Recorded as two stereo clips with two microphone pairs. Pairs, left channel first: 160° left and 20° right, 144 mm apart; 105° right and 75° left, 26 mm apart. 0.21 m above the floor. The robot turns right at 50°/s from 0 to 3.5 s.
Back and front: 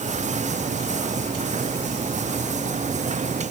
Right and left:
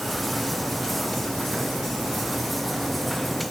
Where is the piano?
No piano in this recording.